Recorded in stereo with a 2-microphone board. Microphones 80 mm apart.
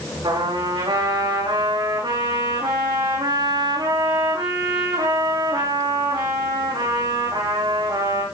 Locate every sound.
0.2 s a trumpet: 80° right, 8.5 m